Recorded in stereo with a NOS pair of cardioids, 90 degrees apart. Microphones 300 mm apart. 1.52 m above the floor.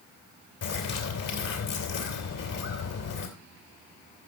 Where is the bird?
60° left, 3.5 m.